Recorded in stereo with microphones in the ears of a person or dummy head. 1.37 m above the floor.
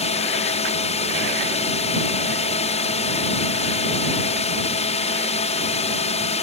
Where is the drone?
35° left (ahead or behind).